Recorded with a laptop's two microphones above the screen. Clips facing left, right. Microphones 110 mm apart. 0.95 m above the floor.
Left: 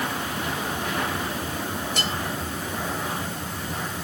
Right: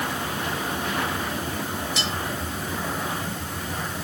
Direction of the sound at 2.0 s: 55° left (ahead or behind).